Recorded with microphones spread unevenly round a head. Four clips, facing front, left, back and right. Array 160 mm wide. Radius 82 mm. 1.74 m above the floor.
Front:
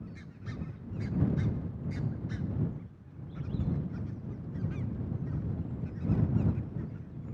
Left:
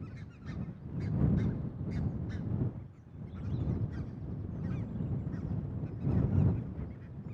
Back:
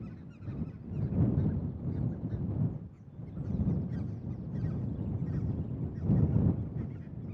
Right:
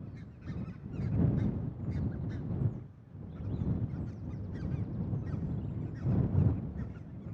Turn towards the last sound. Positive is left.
No sound to turn to.